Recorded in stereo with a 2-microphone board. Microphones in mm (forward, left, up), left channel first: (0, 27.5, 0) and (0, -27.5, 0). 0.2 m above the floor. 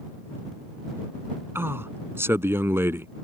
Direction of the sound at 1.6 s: 50° right (ahead or behind).